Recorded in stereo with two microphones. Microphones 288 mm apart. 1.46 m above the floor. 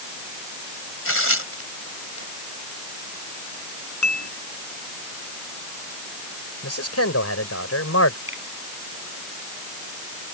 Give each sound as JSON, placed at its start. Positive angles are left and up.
{"t": 1.1, "sound": "tearing paper", "side_deg": 50}
{"t": 4.0, "sound": "dishes clattering", "side_deg": 75}
{"t": 6.6, "sound": "a man speaking", "side_deg": 55}
{"t": 8.3, "sound": "a finger snap", "side_deg": -40}